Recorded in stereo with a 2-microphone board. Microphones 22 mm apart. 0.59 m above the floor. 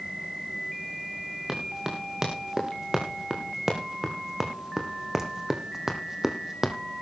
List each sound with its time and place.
1.5 s running footsteps: 20° right (ahead or behind), 4.5 m; by 6.8 s 15° right (ahead or behind), 1.5 m